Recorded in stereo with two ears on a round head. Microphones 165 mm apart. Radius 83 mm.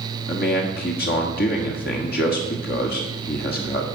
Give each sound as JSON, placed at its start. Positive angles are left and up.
{"t": 0.3, "sound": "a man speaking", "side_deg": 55, "distance_m": 1.4}